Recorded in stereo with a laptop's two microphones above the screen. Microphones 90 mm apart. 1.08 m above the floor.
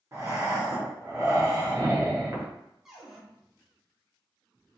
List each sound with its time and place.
0.1 s breathing: 30° right (ahead or behind), 0.7 m
2.9 s a cupboard door: 5° right (ahead or behind), 0.7 m